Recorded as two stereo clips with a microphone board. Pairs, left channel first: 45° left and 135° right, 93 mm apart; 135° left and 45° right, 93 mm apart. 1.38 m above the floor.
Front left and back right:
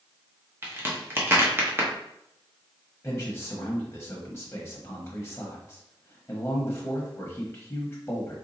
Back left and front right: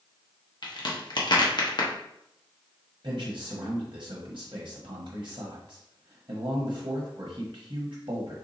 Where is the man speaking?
20° right, 1.0 m.